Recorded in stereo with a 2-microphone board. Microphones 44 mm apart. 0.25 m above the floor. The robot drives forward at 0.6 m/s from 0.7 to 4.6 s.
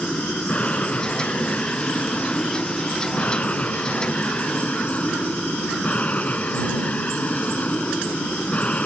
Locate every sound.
0.0 s an aircraft: 25° left (ahead or behind); by 8.9 s 30° left (ahead or behind)